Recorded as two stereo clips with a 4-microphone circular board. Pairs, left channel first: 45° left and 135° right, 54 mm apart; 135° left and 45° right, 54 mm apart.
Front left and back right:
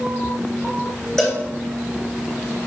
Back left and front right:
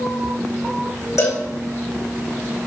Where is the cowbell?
120° left, 3.5 m.